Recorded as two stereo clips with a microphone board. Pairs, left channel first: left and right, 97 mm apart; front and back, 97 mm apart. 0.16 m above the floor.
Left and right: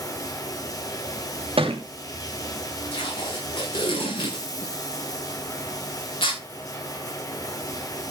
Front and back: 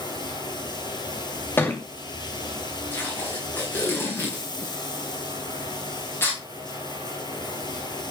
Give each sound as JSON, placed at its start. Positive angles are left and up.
{"t": 0.0, "sound": "running water", "azimuth_deg": 40, "distance_m": 2.0}
{"t": 1.6, "sound": "a thud", "azimuth_deg": -70, "distance_m": 2.5}
{"t": 2.9, "sound": "tape being pulled", "azimuth_deg": 65, "distance_m": 7.0}